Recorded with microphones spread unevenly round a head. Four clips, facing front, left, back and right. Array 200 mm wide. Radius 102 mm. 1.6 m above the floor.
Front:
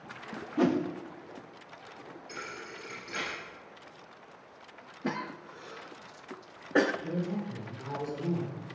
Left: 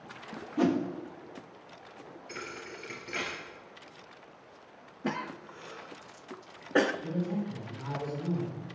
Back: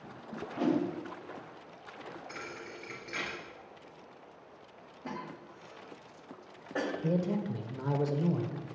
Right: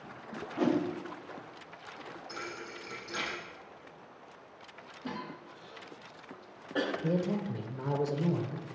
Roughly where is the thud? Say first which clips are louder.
Left 2 dB, front 1 dB; left.